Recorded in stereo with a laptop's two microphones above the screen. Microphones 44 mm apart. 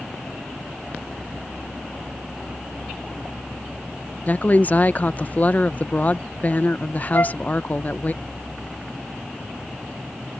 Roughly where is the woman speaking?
Left.